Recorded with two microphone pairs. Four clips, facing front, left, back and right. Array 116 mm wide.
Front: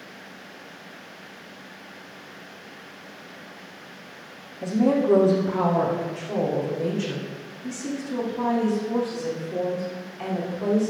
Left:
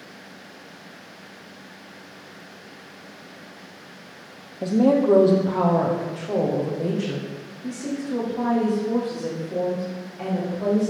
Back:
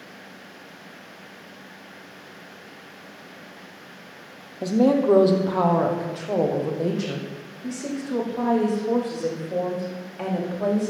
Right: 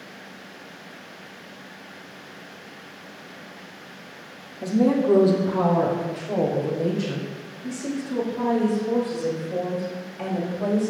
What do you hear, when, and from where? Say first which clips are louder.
4.6 s a woman speaking: left 2 dB, back 2 dB; 155° left, 2.5 m; by 10.9 s 175° right, 7 m